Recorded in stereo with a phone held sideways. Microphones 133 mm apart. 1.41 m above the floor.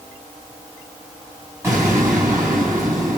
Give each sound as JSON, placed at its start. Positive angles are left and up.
{"t": 1.6, "sound": "an explosion", "side_deg": -20, "distance_m": 8.5}